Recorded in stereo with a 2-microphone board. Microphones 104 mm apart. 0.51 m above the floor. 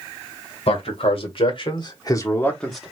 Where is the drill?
No drill in this recording.